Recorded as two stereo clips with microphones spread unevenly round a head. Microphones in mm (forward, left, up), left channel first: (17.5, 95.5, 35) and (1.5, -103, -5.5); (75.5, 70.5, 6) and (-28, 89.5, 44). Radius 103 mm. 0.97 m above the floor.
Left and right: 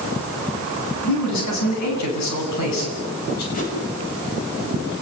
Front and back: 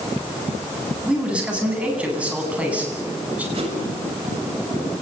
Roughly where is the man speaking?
Left.